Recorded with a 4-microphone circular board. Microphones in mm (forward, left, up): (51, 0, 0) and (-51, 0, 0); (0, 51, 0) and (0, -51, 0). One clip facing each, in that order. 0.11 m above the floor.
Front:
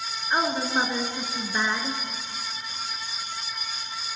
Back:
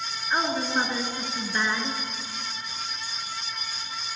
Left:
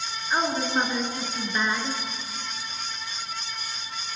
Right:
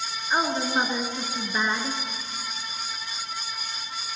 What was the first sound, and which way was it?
A woman speaking, 45° right.